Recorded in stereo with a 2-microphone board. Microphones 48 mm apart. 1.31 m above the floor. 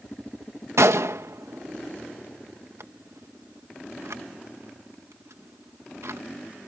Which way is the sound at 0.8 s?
80° right.